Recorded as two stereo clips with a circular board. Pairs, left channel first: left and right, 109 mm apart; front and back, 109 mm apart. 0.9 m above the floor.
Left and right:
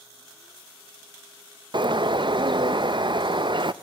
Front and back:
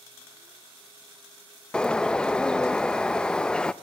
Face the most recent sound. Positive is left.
turn(degrees=-80)